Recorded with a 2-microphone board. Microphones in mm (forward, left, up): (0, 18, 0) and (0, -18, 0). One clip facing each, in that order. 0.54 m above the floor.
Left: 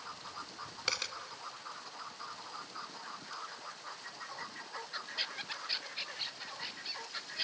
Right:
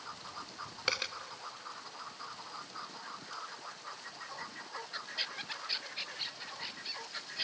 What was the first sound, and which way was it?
A dropped coin, 15° right (ahead or behind).